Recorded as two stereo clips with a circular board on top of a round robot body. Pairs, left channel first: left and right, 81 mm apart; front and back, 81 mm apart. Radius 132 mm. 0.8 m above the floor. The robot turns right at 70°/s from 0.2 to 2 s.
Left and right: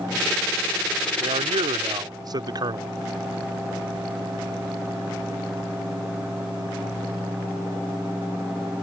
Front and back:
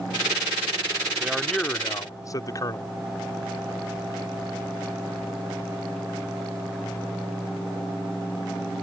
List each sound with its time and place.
1.2 s a man speaking: 105° right; by 2.9 s 50° right